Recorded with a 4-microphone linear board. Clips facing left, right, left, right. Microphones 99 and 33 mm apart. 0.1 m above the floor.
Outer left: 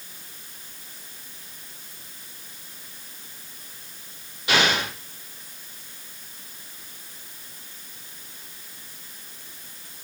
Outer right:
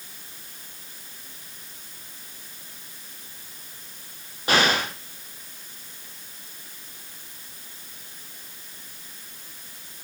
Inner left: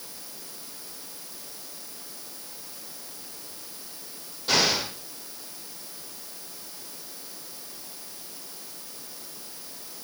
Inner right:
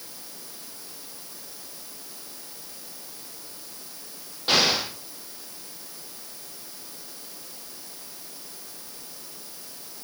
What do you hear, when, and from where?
4.5 s an explosion: 40° right (ahead or behind), 4.5 m